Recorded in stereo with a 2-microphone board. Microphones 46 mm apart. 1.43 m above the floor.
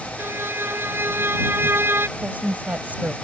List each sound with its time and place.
0.2 s a violin: 55° right (ahead or behind)
2.2 s a woman speaking: 40° right (ahead or behind)